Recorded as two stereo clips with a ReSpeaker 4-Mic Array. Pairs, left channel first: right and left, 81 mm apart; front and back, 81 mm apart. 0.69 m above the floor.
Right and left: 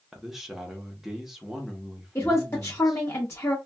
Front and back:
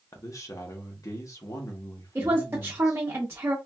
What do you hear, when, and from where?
0.1 s a man speaking: 5° left, 0.9 m
2.1 s a woman speaking: 130° right, 0.7 m